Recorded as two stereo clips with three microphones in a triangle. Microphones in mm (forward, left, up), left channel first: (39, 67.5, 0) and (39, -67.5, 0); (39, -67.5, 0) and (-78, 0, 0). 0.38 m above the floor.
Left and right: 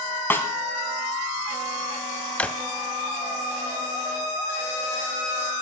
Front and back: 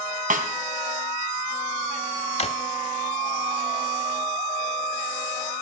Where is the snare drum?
165° left, 1.6 m.